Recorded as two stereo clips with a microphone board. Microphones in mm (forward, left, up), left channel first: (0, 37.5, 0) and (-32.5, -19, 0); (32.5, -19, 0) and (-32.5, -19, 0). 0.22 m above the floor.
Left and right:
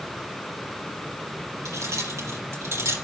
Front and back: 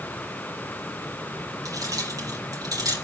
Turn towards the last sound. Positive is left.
turn(degrees=-165)